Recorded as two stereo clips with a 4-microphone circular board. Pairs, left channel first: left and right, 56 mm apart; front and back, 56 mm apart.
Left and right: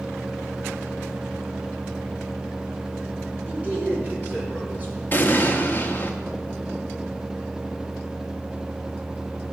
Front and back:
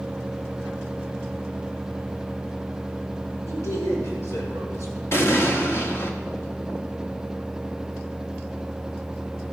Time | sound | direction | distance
3.5 | a man speaking | 20° right | 5.5 m
5.1 | an explosion | 40° left | 1.2 m